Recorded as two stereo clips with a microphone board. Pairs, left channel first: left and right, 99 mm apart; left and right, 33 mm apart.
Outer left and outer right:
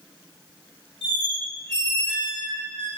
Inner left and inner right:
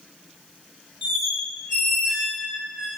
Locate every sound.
1.0 s a squeak: 10° left (ahead or behind), 1.3 m